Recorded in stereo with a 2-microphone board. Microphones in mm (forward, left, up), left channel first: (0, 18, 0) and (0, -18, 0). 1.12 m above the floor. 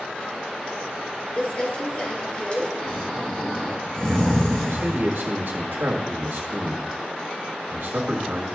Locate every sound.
1.4 s crumpling: 30° left (ahead or behind), 3 m
2.8 s snoring: 20° left (ahead or behind), 3.5 m
4.7 s a man speaking: 75° right (ahead or behind), 1.7 m